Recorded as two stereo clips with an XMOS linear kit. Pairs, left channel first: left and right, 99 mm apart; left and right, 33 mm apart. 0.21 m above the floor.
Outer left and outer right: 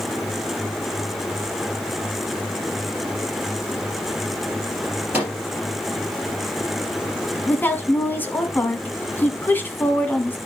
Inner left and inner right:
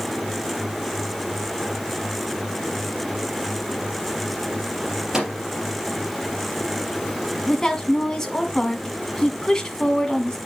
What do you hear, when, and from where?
5.1 s a microwave: 15° right (ahead or behind), 3.5 m
7.5 s a woman speaking: 20° left (ahead or behind), 1.5 m